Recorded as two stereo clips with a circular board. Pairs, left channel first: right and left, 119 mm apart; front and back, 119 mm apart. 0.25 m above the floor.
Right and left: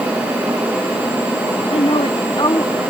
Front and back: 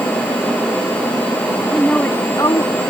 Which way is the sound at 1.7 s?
90° right.